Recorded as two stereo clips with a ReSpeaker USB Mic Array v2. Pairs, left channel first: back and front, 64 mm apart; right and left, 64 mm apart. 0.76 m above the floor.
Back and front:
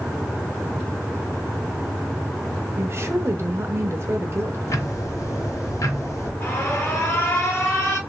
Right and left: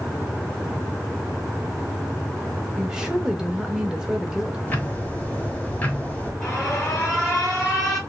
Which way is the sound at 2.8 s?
15° left.